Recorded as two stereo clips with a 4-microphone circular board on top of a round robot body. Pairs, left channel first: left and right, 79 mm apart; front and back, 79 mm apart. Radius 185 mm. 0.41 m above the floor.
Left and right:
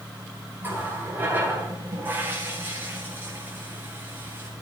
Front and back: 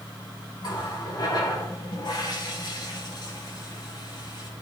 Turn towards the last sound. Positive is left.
turn(degrees=-25)